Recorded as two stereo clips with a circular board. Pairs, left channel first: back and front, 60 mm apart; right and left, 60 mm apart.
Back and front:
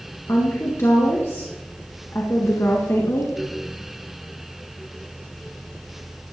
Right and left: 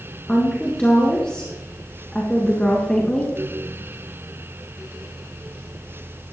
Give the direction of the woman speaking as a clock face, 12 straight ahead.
5 o'clock.